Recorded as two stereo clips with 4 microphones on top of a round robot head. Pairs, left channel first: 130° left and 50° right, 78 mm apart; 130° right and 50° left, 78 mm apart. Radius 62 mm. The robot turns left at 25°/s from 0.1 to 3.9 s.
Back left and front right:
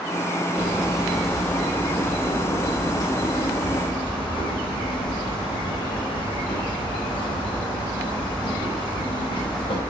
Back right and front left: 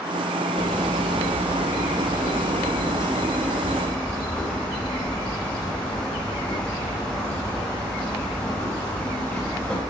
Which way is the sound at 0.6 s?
120° right.